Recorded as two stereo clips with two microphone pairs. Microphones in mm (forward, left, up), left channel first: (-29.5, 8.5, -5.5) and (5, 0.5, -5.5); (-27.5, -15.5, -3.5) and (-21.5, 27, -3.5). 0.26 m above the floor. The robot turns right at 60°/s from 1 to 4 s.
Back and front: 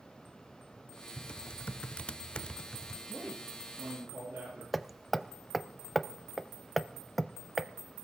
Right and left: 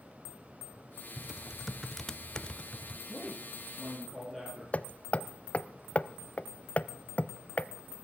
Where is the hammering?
95° right, 0.6 m.